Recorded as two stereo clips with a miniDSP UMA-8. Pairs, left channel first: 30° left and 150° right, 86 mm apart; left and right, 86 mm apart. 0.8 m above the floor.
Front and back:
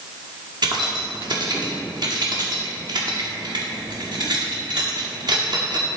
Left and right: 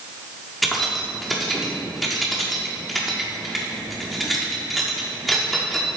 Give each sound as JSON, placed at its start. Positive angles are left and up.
{"t": 0.6, "sound": "keys jangling", "azimuth_deg": 180, "distance_m": 1.3}